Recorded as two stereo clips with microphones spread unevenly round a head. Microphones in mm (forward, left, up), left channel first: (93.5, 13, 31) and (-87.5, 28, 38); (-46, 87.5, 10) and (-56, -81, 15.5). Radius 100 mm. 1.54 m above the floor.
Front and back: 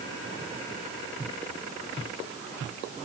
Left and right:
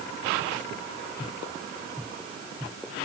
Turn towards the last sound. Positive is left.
No sound to turn to.